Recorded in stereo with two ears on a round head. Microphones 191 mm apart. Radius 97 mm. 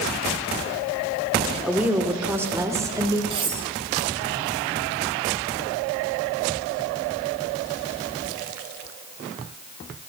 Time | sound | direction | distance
1.6 | a woman speaking | 5° right (ahead or behind) | 2 m
3.3 | cutlery clinking | 25° right (ahead or behind) | 5 m